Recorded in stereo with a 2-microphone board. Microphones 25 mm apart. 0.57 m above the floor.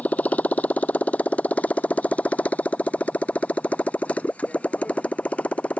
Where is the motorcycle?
65° left (ahead or behind); by 5.8 s 55° left (ahead or behind).